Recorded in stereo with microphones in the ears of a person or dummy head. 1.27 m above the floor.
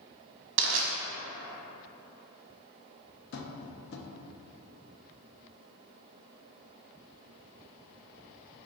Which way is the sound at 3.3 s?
50° left (ahead or behind).